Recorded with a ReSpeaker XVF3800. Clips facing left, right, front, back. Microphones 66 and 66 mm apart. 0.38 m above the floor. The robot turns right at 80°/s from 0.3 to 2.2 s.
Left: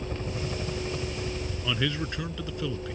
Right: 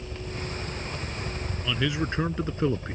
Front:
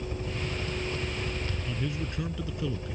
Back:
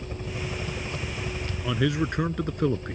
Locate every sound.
0.0 s a helicopter: 120° left; by 2.9 s 85° right
1.6 s a man speaking: 170° left; by 2.9 s 145° right